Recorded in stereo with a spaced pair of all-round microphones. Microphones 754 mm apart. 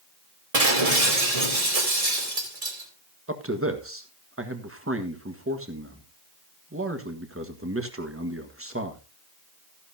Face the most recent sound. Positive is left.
turn(degrees=-15)  # may be behind; listen again after turning